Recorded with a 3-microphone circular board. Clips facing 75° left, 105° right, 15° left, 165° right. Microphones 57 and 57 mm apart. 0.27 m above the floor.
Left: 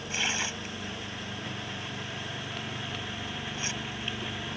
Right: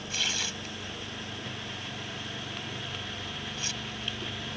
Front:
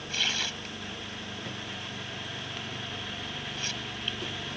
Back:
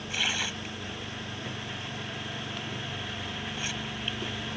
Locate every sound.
0.1 s tearing paper: 125° left